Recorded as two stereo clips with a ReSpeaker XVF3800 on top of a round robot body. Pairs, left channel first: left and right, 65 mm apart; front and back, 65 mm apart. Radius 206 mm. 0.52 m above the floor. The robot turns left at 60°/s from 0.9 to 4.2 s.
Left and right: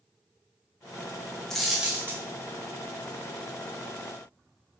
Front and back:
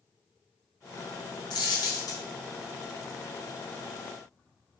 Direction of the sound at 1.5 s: 10° left.